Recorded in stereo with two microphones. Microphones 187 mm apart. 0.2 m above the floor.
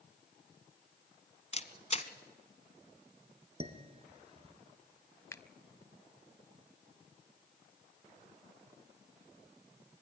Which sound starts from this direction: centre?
A finger snap, at 5.3 s.